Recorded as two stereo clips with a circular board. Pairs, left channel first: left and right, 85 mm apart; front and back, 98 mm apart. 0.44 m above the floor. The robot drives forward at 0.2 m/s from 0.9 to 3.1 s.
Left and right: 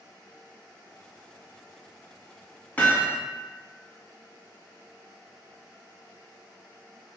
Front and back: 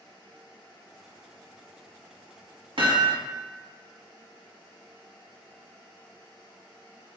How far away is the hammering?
About 1.0 m.